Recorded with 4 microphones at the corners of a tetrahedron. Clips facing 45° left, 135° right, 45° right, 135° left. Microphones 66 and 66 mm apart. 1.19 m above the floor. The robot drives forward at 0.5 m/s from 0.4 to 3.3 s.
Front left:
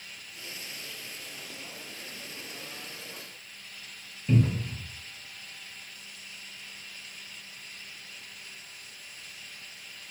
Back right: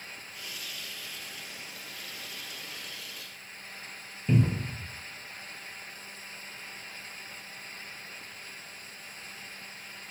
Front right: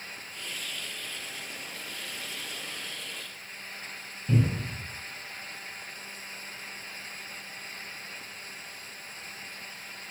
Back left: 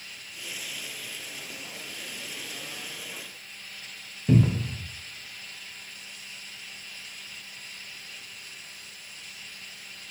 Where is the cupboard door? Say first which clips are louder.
Even, back left 5 dB; 150° left, 0.5 m.